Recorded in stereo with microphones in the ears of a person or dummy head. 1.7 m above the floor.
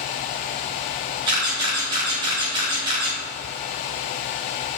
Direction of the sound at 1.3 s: 30° right (ahead or behind).